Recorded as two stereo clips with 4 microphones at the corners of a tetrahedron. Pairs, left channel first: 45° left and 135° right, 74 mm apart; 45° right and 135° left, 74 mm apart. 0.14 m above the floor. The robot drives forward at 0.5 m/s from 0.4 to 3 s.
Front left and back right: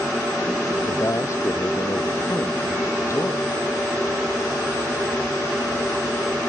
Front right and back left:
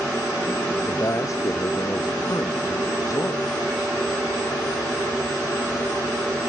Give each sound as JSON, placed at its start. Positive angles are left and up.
{"t": 0.9, "sound": "a man speaking", "azimuth_deg": 0}